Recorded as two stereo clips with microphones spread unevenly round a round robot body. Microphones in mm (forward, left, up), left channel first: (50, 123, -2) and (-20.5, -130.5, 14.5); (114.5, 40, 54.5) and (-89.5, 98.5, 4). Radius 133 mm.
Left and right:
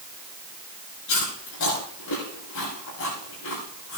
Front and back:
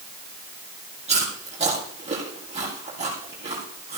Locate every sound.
1.1 s chewing: 105° left, 7 m